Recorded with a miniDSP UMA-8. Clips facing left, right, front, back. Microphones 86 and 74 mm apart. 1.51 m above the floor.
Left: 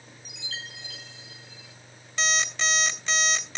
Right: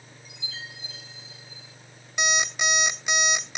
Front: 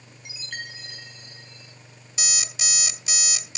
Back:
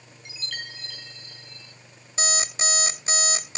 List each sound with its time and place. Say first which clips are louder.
0.2 s a chime: left 1 dB, front 1 dB; 70° left, 1.6 m
2.2 s an alarm clock: right 1 dB, back 6 dB; 160° right, 1.4 m